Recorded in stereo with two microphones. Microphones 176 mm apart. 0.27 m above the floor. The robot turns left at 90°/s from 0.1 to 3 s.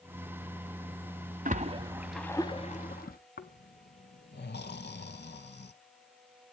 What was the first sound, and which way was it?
A splash, 45° right (ahead or behind).